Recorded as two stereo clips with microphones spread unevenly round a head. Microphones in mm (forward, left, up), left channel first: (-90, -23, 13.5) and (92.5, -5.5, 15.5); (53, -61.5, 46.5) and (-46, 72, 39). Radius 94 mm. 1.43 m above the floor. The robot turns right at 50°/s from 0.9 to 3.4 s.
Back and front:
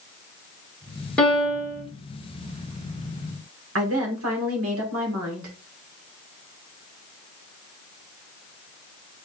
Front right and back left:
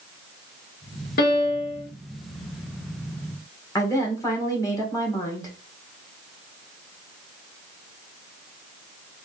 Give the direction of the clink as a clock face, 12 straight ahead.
I don't hear a clink.